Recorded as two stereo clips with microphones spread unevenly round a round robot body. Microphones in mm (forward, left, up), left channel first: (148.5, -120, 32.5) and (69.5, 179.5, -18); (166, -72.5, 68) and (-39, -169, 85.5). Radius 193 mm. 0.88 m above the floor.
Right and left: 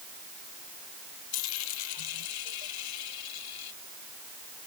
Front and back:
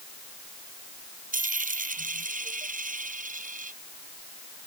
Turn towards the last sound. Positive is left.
turn(degrees=-100)